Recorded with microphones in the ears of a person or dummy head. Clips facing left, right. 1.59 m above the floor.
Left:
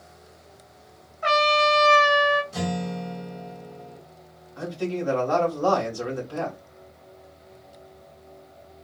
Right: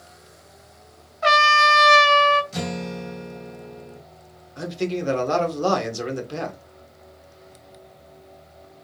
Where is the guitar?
25° right (ahead or behind), 2.0 m.